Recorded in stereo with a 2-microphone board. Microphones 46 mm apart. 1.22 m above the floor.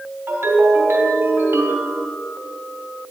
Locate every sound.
0.3 s a ringtone: 70° right (ahead or behind), 3 m